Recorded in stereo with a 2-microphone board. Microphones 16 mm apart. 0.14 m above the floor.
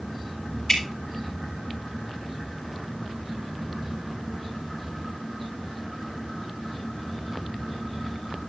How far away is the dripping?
About 5 m.